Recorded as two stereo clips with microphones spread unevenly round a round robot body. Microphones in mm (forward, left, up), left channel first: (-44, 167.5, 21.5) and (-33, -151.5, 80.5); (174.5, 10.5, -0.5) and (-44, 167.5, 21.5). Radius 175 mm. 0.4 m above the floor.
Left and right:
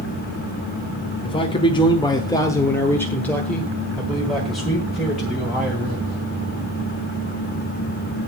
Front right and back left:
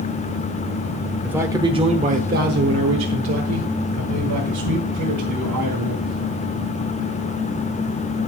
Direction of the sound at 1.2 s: 55° left.